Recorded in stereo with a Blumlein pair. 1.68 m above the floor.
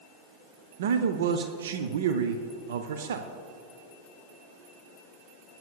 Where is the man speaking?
60° right, 0.7 m.